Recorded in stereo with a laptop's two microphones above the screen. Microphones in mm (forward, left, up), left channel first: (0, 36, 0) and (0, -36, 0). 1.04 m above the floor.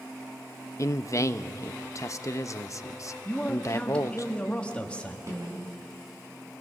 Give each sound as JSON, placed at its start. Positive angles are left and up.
{"t": 0.8, "sound": "a man speaking", "side_deg": 45, "distance_m": 0.8}
{"t": 3.2, "sound": "a man speaking", "side_deg": 15, "distance_m": 1.3}
{"t": 5.3, "sound": "a snare drum", "side_deg": -40, "distance_m": 5.0}